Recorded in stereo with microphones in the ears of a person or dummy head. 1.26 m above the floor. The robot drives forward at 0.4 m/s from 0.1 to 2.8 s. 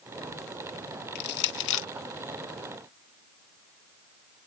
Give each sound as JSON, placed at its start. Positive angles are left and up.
{"t": 1.1, "sound": "crushing", "side_deg": 60}